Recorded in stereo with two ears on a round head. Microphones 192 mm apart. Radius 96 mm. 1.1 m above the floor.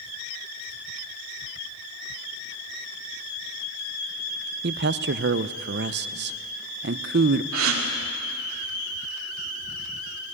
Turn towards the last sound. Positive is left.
turn(degrees=-70)  # may be behind; listen again after turning